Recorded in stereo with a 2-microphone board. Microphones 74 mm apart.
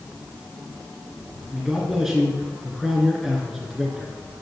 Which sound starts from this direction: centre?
A man speaking, at 1.5 s.